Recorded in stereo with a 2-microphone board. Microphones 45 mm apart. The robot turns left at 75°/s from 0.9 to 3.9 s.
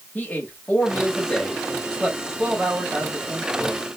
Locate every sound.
0.1 s a man speaking: 80° left, 1.2 m; by 4.0 s 145° right, 1.2 m